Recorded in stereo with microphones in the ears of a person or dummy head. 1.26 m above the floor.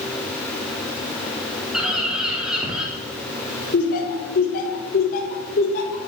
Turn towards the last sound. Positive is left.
turn(degrees=50)  # may be behind; listen again after turning